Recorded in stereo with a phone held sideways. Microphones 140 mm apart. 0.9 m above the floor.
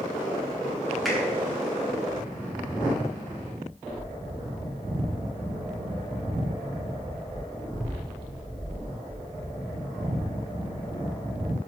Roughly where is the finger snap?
Centre.